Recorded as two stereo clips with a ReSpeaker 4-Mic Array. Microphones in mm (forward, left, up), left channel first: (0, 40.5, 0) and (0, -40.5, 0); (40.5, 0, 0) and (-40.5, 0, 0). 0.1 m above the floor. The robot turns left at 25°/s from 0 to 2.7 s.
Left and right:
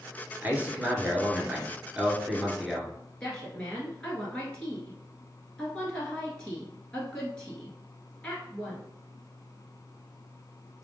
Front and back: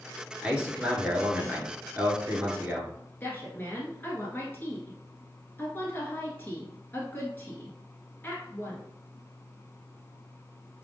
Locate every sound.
0.4 s a man speaking: 120° right, 1.3 m; by 2.9 s 175° right, 1.3 m
3.2 s a woman speaking: 25° left, 1.3 m